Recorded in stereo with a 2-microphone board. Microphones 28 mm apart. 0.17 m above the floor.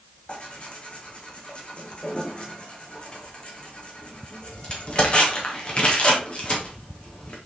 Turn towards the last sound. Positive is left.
turn(degrees=40)  # may be behind; listen again after turning